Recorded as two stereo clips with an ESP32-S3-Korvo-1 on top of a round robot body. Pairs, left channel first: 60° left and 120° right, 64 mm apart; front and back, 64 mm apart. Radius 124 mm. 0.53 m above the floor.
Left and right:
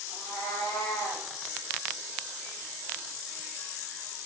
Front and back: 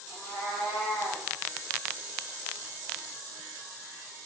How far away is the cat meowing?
About 3.5 m.